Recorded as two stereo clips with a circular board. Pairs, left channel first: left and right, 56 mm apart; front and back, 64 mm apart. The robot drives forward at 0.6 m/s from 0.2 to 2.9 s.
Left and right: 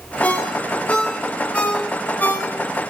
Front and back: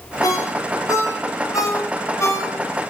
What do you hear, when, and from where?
0.2 s a ringtone: 20° left, 3 m; by 2.5 s 40° left, 1.8 m